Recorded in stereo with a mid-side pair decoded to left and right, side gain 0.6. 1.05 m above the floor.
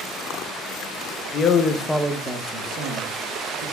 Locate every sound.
1.3 s a man speaking: 50° left, 0.9 m; by 3.6 s 70° right, 2.0 m